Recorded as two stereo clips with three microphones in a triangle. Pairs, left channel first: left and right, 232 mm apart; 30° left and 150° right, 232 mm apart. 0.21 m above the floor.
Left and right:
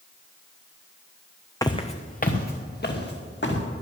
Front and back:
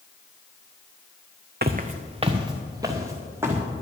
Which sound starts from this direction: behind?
Footsteps, at 1.6 s.